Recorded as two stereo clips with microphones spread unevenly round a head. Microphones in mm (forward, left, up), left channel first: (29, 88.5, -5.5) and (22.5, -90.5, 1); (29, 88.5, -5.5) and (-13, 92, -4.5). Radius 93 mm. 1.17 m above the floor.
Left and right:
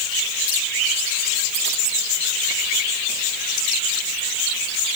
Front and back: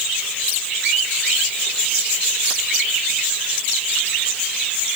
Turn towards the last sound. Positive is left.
No sound to turn to.